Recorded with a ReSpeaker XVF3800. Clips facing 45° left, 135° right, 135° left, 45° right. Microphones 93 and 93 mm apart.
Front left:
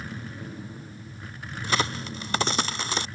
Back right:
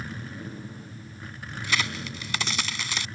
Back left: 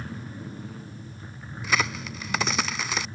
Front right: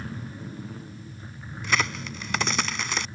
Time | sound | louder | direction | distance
1.6 | a crack | front left 3 dB, even | 50° left | ?